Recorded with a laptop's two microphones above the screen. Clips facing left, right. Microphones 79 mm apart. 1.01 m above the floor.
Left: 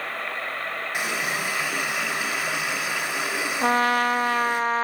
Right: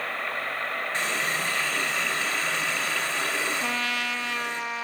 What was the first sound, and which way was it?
A running tap, 15° left (ahead or behind).